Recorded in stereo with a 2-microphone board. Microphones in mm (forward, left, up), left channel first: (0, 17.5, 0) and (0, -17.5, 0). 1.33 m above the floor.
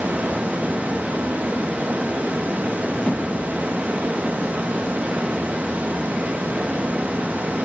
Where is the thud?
45° left (ahead or behind), 2.0 m.